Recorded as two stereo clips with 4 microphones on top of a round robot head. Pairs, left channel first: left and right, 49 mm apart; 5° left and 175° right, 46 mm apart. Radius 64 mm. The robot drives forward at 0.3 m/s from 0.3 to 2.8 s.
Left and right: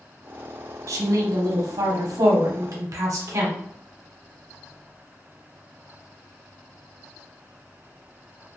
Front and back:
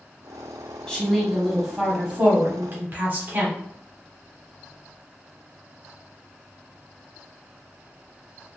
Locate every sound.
0.9 s a woman speaking: 70° right, 0.7 m; by 3.6 s 115° right, 0.7 m